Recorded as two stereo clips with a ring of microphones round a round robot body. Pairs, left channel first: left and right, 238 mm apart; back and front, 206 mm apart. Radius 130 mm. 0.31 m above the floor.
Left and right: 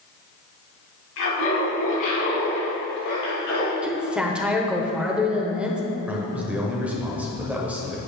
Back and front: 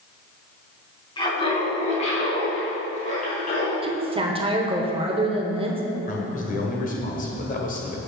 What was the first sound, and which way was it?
Laughter, 115° left.